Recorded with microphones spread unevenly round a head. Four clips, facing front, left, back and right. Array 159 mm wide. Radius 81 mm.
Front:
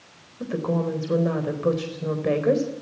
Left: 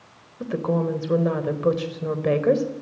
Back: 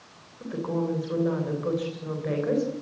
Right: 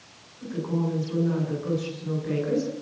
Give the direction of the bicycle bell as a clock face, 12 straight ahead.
I don't hear a bicycle bell.